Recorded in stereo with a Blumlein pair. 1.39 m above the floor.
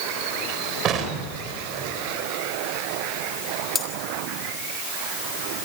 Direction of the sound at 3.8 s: 15° left.